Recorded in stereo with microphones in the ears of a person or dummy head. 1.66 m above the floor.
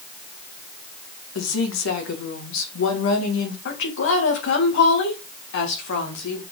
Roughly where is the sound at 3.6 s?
Left.